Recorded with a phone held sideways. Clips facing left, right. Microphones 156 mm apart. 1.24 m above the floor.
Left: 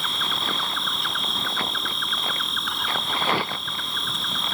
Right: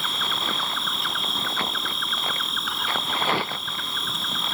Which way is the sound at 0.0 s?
Centre (ahead or behind).